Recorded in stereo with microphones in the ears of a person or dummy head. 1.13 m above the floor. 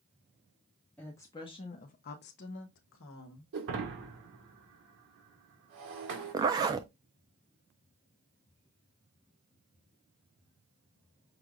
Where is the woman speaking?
5° left (ahead or behind), 0.8 m; by 3.4 s 70° left (ahead or behind), 1.3 m.